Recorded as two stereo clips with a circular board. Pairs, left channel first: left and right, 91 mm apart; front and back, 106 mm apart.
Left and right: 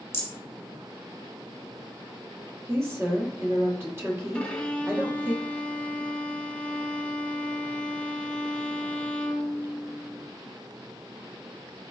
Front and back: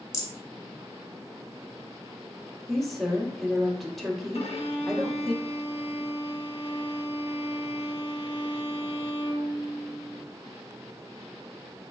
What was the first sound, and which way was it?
A rattle, 40° left.